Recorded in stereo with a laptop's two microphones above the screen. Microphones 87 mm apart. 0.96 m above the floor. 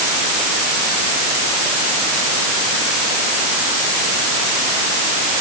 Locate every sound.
Only background noise.